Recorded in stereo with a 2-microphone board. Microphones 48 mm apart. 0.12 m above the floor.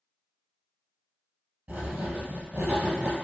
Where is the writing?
35° right (ahead or behind), 0.9 m.